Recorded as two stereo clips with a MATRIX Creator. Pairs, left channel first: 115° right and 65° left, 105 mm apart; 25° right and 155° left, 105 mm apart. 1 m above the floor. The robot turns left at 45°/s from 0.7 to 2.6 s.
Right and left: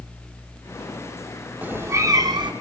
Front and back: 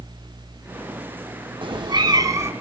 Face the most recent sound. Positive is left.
turn(degrees=95)